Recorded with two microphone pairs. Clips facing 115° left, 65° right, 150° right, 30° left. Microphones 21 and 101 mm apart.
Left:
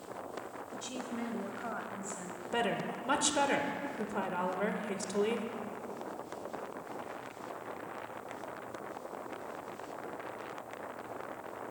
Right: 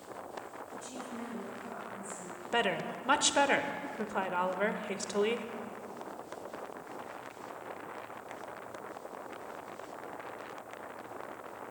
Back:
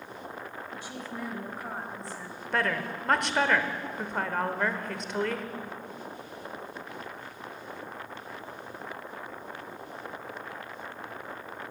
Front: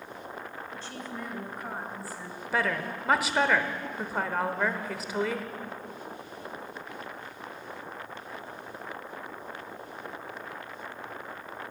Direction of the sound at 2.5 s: 50° right.